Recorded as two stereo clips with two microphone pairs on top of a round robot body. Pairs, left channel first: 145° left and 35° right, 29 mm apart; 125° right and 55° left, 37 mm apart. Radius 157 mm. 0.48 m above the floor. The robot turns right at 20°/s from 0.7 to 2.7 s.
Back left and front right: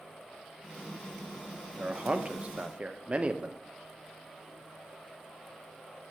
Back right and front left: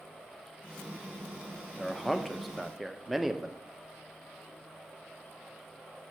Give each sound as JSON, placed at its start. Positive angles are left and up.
{"t": 1.8, "sound": "a man speaking", "azimuth_deg": -50, "distance_m": 1.2}